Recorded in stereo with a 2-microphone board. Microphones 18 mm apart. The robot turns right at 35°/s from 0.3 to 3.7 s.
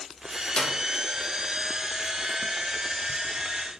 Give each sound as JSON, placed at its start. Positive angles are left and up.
{"t": 0.6, "sound": "a clap", "side_deg": 45, "distance_m": 1.7}